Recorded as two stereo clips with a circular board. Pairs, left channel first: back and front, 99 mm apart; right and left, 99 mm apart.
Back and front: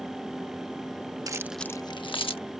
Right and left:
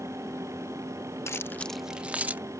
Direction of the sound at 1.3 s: 35° right.